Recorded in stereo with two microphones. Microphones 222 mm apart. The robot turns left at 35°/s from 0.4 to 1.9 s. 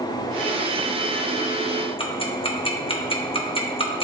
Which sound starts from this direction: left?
Ticking, at 2.0 s.